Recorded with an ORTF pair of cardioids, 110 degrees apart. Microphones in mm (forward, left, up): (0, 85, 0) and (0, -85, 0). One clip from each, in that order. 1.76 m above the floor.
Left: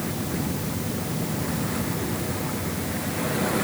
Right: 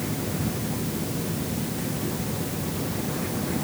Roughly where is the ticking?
No ticking in this recording.